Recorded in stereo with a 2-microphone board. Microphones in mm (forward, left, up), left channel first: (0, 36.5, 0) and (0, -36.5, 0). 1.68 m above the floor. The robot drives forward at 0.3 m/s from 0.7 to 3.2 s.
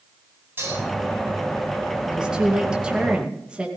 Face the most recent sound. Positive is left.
turn(degrees=-15)  # may be behind; listen again after turning